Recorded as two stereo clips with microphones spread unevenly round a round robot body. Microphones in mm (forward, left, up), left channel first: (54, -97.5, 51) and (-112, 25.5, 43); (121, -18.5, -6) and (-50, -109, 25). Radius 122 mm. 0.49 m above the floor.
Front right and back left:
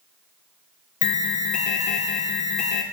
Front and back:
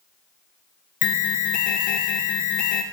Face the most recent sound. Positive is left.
turn(degrees=10)